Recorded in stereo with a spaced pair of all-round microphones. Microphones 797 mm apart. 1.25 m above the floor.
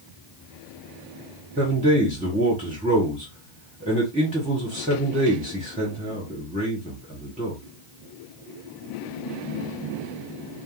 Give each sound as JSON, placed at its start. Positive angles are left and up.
{"t": 1.6, "sound": "a man speaking", "side_deg": -10, "distance_m": 1.1}